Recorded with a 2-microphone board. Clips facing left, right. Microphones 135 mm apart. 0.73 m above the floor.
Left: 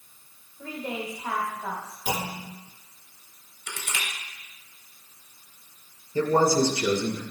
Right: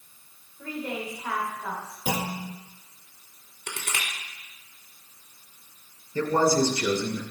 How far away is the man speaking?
About 2.5 m.